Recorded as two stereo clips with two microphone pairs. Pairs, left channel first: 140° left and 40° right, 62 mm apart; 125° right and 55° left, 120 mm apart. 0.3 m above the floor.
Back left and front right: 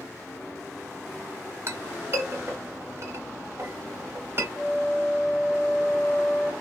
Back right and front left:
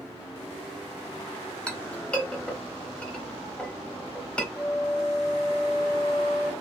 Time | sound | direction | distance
1.7 | a clink | 45° right | 0.7 m
4.5 | a flute | 150° right | 0.7 m